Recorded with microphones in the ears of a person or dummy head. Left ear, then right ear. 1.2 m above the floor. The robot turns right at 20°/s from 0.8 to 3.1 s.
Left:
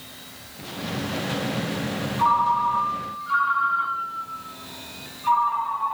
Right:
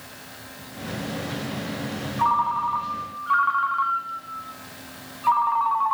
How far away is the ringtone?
About 0.8 m.